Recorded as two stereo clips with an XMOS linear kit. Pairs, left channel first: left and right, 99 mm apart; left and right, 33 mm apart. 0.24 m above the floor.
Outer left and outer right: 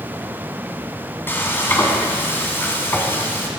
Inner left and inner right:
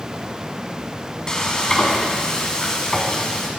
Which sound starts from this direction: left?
Frying, at 1.3 s.